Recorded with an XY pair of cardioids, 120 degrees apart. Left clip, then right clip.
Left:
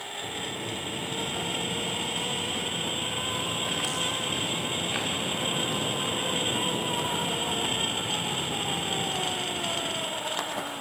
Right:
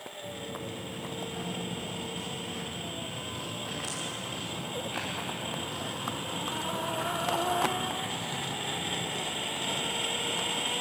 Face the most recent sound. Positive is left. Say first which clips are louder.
# left 4 dB
turn(degrees=45)